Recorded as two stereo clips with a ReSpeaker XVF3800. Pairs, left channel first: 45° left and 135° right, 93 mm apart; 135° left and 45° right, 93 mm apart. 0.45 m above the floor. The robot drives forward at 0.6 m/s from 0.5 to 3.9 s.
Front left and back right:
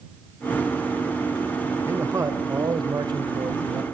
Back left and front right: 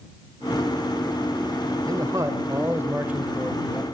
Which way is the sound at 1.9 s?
80° right.